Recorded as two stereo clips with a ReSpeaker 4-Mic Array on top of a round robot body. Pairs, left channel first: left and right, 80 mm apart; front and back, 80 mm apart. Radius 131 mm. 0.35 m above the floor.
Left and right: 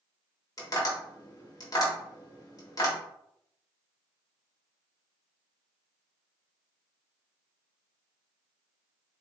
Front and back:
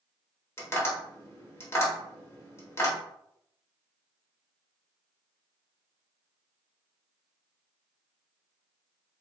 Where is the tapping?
55° left, 1.8 m.